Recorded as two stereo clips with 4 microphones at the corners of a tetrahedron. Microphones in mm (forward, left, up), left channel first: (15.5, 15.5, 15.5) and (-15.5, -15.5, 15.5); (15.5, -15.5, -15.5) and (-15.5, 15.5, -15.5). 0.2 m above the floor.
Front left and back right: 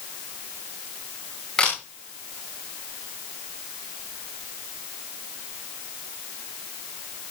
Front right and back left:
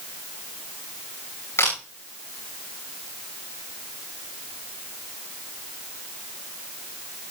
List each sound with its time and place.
1.6 s a camera shutter: 30° right, 8.5 m